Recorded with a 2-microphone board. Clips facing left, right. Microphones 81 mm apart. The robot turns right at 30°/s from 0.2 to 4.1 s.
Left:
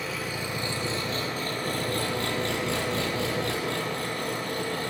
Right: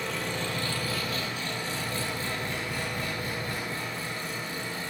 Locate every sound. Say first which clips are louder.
0.0 s an engine running: even; 5° left, 4 m; by 4.9 s 120° left, 4 m